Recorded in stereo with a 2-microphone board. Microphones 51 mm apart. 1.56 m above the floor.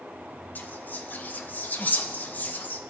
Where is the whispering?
35° left (ahead or behind), 0.6 m.